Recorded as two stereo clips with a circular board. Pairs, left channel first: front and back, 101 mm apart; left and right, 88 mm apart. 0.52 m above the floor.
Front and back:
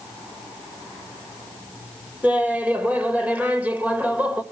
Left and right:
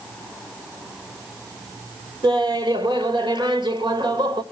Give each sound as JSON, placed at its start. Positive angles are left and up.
{"t": 2.2, "sound": "laughter", "azimuth_deg": -105, "distance_m": 2.0}